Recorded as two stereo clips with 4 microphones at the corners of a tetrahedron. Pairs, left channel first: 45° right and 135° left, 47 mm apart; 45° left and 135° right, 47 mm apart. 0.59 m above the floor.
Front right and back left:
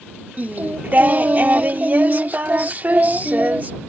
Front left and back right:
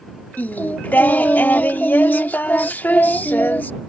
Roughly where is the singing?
Left.